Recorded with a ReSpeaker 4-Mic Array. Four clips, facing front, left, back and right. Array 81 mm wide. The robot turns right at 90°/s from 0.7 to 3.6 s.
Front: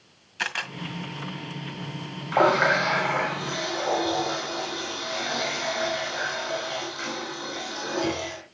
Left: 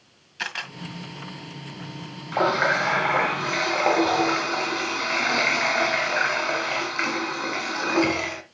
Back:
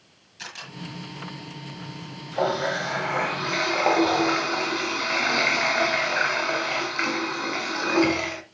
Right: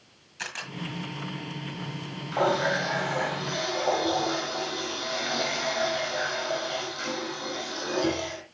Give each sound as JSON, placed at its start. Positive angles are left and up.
{"t": 0.4, "sound": "a camera shutter", "azimuth_deg": 25, "distance_m": 1.8}
{"t": 2.3, "sound": "a running tap", "azimuth_deg": 15, "distance_m": 1.8}